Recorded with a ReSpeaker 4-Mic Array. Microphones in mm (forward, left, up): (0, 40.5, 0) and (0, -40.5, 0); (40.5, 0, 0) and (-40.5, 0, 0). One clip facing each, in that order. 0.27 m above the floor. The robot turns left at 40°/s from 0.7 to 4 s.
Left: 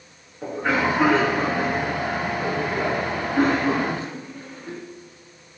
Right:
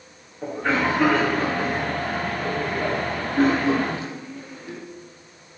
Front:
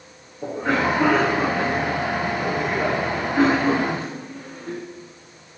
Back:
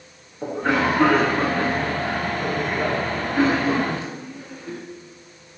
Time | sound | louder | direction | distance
0.4 | a cough | even, back 1 dB | 175° left | 3.5 m